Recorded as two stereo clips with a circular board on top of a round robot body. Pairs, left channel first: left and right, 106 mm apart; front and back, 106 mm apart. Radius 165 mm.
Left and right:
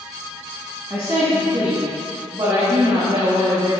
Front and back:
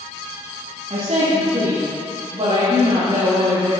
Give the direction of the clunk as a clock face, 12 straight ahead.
I don't hear a clunk.